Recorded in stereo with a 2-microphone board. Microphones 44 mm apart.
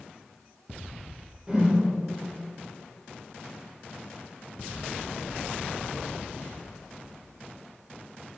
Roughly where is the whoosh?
Centre.